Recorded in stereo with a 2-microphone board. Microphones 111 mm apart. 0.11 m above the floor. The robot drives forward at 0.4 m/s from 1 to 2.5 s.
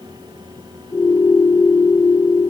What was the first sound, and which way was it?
Only background noise.